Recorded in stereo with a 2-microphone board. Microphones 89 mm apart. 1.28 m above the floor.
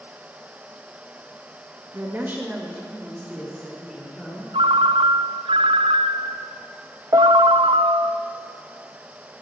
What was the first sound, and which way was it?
A woman speaking, 30° right (ahead or behind).